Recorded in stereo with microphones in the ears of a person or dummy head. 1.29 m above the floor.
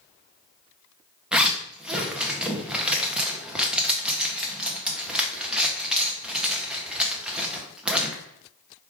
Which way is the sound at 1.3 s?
10° right (ahead or behind).